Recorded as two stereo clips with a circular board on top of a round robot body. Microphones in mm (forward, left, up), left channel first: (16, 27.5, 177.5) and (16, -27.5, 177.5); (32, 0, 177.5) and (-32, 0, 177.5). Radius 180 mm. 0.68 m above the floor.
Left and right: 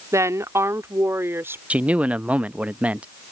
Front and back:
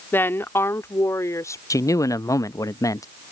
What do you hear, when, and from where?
0.1 s a woman speaking: 55° right; by 1.6 s 40° right
1.7 s a man speaking: 25° right